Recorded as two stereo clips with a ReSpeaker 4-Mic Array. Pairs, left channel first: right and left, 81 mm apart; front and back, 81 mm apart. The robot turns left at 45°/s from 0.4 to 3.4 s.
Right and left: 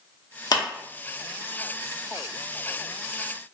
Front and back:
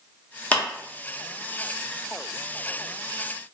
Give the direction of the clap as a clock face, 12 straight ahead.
2 o'clock.